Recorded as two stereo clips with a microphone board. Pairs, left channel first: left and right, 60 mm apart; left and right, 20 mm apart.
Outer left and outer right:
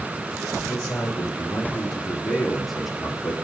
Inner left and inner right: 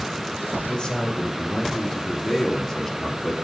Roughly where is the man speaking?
Left.